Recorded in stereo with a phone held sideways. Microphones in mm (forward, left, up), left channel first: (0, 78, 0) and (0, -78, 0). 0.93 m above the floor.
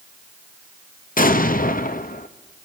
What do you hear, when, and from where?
1.2 s an explosion: 65° left (ahead or behind), 0.8 m